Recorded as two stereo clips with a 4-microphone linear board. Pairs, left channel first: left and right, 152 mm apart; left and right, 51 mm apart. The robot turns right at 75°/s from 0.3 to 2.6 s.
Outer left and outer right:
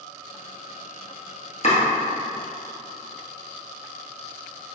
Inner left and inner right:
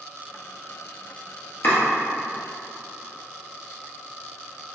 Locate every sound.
1.6 s chopping: 50° left (ahead or behind), 1.7 m; by 1.8 s 45° left (ahead or behind), 1.7 m